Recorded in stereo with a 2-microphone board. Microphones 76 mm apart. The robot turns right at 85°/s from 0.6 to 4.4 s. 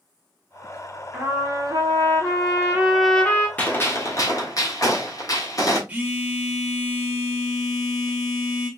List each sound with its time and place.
1.1 s a trumpet: 165° right, 1.9 m; by 3.5 s 35° left, 1.9 m
3.6 s a gunshot: 25° left, 1.3 m; by 5.8 s 95° left, 1.3 m
5.9 s a phone buzzing: 20° right (ahead or behind), 1.2 m